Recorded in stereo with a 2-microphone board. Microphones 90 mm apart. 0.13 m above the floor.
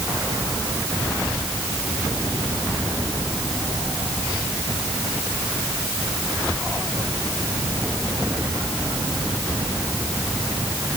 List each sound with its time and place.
Only background noise.